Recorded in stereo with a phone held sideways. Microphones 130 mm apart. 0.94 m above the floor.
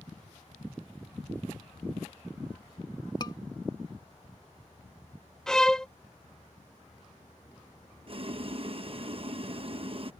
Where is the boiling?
45° right (ahead or behind).